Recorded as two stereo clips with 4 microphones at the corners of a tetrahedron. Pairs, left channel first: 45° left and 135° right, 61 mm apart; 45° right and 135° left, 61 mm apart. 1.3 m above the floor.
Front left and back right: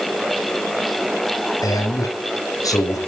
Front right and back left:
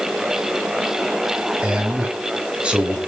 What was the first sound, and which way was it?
A man speaking, 60° left.